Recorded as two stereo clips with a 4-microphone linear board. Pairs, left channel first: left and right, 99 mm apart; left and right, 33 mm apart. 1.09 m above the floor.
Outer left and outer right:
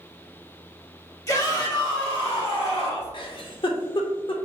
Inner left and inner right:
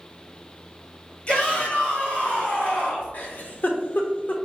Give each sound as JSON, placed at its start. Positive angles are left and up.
{"t": 1.3, "sound": "a shout", "side_deg": 35, "distance_m": 1.7}
{"t": 3.1, "sound": "a giggle", "side_deg": 60, "distance_m": 0.6}